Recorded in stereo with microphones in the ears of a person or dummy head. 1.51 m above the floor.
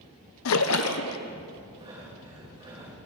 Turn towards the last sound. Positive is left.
turn(degrees=-25)  # may be behind; listen again after turning